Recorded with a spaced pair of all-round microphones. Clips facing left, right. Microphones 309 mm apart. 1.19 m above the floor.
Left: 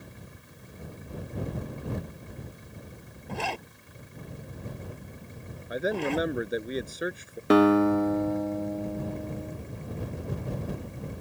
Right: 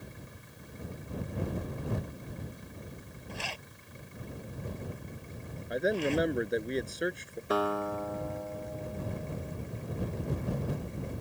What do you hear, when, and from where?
3.3 s a zipper: 65° left (ahead or behind)
5.7 s a man speaking: centre (ahead or behind)
7.5 s a guitar: 85° left